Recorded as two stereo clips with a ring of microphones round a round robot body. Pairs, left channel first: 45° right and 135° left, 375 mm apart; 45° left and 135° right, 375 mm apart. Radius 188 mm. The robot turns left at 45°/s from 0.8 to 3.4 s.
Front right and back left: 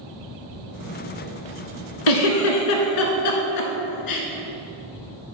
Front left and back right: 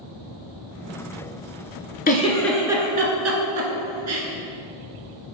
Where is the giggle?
25° right, 1.3 m; by 4.2 s 85° right, 1.3 m.